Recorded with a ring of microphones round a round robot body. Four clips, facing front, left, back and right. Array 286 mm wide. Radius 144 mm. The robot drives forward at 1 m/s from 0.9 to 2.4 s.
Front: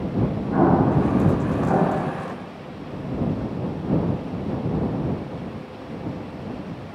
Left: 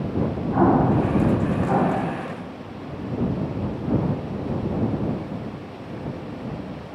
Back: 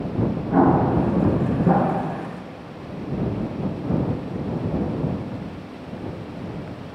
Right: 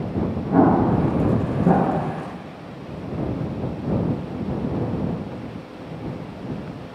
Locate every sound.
0.5 s an explosion: 115° right, 9 m; by 2.1 s 120° right, 9.5 m